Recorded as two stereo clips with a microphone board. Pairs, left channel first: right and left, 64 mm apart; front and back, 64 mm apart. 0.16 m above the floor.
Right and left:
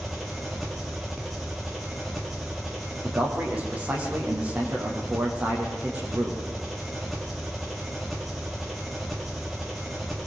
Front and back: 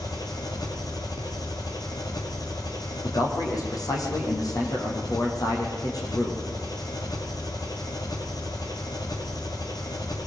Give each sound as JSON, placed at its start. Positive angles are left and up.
{"t": 0.0, "sound": "an engine running", "azimuth_deg": 0, "distance_m": 4.0}
{"t": 3.0, "sound": "a man speaking", "azimuth_deg": 20, "distance_m": 8.0}